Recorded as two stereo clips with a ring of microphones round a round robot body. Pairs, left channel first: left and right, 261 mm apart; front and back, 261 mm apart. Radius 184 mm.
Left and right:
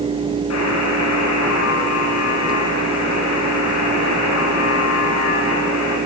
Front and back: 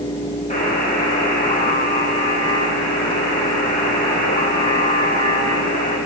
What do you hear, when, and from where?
0.5 s a buzzer: 60° left, 8.5 m